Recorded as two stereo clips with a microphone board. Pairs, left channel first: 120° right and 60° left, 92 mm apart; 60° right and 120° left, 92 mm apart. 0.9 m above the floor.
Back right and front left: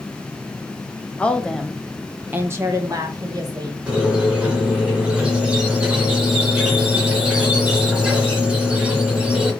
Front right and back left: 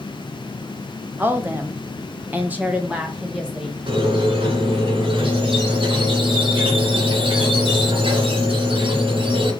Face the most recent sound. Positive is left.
turn(degrees=140)